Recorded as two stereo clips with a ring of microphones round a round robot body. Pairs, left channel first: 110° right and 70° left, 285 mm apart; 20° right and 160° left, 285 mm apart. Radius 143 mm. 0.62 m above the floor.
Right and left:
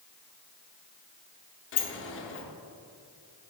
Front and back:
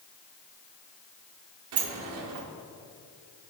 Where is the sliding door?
160° right, 0.8 m.